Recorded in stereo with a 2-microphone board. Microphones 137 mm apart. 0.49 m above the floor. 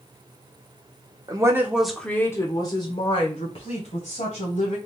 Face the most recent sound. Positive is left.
turn(degrees=55)  # may be behind; listen again after turning